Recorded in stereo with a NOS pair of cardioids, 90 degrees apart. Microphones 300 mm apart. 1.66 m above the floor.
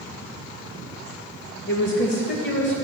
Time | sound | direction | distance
1.7 | a woman speaking | 40° left | 1.7 m